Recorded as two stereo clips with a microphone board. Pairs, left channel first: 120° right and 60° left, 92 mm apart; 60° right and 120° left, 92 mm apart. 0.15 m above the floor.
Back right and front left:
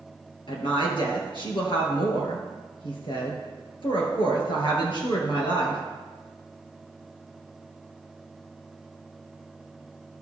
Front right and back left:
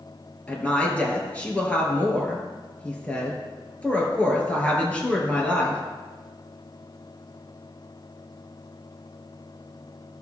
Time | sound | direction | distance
0.5 | a woman speaking | 135° right | 2.5 m